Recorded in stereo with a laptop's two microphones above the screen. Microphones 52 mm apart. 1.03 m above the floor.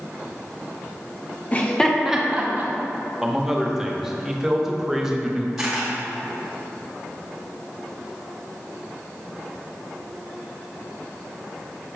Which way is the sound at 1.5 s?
30° left (ahead or behind).